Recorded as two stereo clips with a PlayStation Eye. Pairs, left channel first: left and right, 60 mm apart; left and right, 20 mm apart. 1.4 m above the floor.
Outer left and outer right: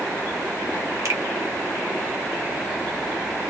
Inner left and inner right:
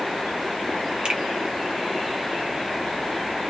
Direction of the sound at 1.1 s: 60° right (ahead or behind).